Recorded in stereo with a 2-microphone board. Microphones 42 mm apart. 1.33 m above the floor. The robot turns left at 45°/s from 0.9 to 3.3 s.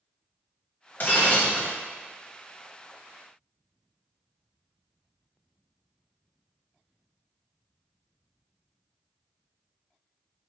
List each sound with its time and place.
1.0 s breaking glass: 70° left, 1.7 m; by 1.7 s 35° left, 1.7 m